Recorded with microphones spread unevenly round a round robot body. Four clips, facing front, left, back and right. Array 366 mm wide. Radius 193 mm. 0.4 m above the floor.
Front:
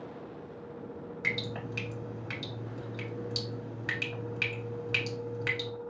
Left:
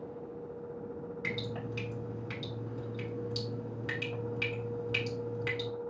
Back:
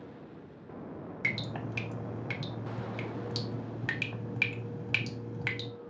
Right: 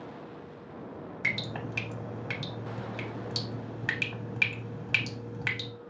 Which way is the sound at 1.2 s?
125° right.